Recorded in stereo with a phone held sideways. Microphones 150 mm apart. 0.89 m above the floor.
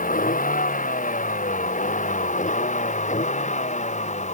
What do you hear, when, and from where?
0.0 s a vehicle: 65° left (ahead or behind); by 4.3 s 50° left (ahead or behind)